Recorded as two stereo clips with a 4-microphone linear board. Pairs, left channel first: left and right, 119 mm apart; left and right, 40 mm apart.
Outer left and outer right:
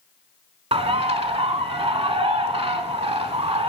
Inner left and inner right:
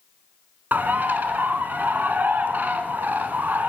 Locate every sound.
0.7 s a bird: 55° right (ahead or behind), 0.8 m